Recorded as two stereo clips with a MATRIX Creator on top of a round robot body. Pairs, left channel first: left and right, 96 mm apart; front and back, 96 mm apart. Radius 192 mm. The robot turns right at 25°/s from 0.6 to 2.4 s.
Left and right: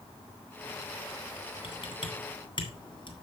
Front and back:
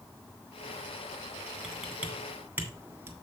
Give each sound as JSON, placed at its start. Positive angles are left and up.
{"t": 1.6, "sound": "typing on a keyboard", "azimuth_deg": 90, "distance_m": 2.5}